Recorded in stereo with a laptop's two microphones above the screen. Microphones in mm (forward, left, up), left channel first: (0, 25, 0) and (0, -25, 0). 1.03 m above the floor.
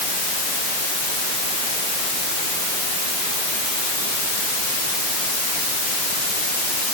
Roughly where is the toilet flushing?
I don't hear a toilet flushing.